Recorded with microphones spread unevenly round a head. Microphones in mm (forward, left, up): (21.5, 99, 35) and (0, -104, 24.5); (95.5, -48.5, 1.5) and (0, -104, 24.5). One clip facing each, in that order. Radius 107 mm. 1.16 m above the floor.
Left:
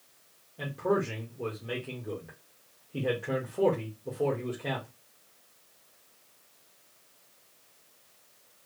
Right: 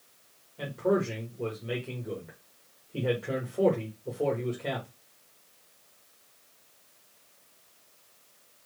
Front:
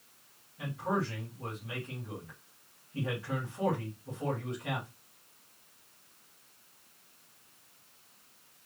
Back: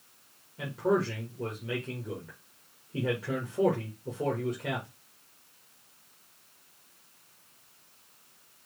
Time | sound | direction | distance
0.6 | a man speaking | 175° left | 1.6 m